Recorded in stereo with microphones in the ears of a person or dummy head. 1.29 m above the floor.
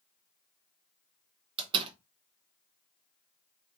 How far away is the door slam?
About 0.6 m.